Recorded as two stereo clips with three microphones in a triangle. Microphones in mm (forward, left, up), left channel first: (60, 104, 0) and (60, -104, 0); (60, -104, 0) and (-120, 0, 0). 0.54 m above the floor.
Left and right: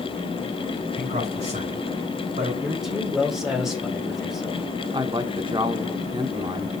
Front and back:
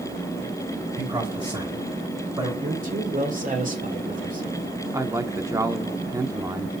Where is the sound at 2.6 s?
Straight behind, 2 m.